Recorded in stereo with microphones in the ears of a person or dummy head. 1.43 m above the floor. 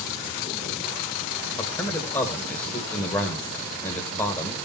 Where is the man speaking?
20° left (ahead or behind), 1.9 m.